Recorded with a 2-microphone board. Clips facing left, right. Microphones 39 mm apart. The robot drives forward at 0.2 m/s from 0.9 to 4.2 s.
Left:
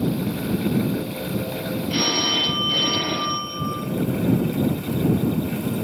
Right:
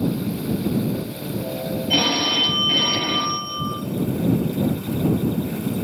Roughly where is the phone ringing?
Right.